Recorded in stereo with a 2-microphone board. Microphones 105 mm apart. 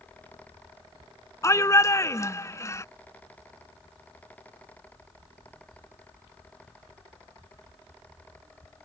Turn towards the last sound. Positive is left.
turn(degrees=30)  # may be behind; listen again after turning